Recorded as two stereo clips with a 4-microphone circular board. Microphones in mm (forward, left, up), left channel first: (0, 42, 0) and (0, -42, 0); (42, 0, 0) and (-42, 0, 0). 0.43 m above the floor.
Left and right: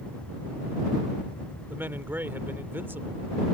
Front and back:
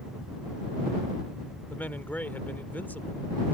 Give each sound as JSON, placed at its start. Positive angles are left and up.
{"t": 1.7, "sound": "a man speaking", "azimuth_deg": -50}